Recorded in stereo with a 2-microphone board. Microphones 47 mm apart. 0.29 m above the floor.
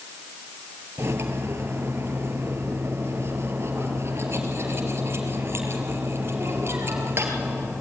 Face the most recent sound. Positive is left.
turn(degrees=-55)  # may be behind; listen again after turning